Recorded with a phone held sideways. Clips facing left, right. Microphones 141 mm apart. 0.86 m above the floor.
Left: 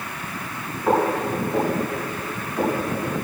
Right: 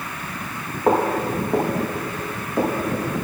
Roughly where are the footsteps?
Right.